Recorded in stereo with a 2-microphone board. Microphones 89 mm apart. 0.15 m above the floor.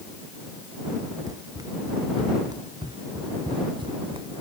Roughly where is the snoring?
I don't hear snoring.